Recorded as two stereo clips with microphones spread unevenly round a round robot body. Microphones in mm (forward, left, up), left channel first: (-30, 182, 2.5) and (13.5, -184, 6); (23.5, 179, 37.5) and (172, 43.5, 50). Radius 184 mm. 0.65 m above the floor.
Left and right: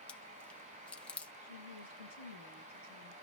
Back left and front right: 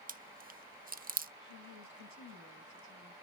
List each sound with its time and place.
0.1 s chewing: 10° left, 0.7 m
1.4 s a woman speaking: 40° right, 7 m